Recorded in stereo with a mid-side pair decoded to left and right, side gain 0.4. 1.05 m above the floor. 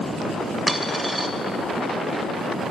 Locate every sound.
0.7 s a dropped coin: 10° right, 1.7 m